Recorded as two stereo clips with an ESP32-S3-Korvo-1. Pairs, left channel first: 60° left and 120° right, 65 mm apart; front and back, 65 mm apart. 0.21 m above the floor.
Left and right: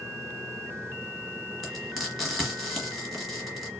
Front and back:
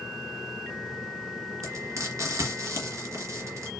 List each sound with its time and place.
1.6 s frying: 155° left, 2.5 m